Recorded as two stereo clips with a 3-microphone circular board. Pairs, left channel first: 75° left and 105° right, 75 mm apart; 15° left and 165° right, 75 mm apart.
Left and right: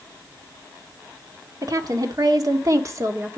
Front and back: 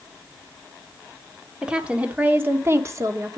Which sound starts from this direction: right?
A woman speaking, at 1.6 s.